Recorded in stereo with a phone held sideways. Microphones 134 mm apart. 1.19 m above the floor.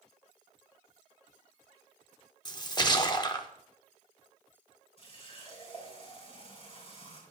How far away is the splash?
About 1.0 m.